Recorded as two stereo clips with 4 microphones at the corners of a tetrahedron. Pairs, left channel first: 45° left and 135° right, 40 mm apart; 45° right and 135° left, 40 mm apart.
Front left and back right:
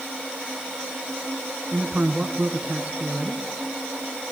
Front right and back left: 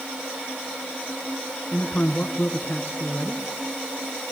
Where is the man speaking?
80° right, 3 m.